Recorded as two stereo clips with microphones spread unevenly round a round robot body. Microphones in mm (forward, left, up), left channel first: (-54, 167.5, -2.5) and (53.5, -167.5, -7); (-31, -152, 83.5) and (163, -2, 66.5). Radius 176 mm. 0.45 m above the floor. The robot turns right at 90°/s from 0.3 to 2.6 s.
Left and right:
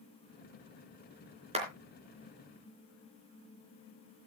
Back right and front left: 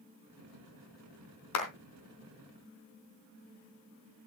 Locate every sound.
1.5 s a clap: 145° right, 3.5 m; by 1.7 s 135° right, 3.5 m